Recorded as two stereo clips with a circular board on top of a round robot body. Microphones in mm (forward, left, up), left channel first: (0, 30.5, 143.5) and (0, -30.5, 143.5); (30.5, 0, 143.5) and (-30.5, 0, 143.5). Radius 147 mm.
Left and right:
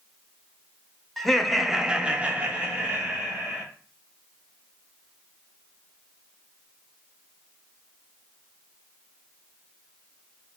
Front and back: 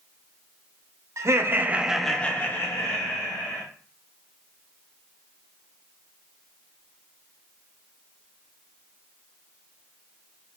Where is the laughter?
175° left, 0.7 m; by 3.6 s 25° right, 1.2 m.